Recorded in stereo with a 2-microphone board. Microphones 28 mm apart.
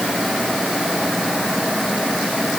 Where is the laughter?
No laughter in this recording.